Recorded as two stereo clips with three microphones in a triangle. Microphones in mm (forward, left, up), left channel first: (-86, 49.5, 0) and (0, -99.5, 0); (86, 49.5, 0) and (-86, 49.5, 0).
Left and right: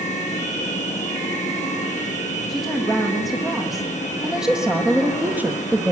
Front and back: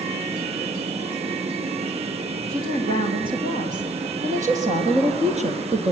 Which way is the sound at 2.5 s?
150° right.